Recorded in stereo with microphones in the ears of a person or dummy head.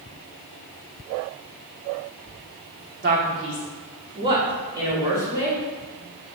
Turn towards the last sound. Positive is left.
turn(degrees=-20)  # may be behind; listen again after turning